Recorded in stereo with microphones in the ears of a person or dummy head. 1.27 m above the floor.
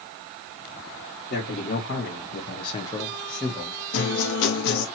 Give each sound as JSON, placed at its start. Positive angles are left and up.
{"t": 1.3, "sound": "a man speaking", "side_deg": 55, "distance_m": 1.1}
{"t": 3.9, "sound": "a guitar", "side_deg": 55, "distance_m": 0.7}